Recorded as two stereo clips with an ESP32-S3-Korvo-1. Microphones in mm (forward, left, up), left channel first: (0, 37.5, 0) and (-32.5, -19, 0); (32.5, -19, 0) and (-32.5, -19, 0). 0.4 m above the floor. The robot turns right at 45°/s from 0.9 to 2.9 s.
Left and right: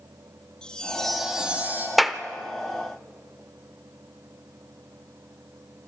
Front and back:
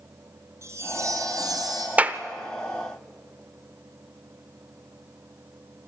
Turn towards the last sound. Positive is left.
turn(degrees=-165)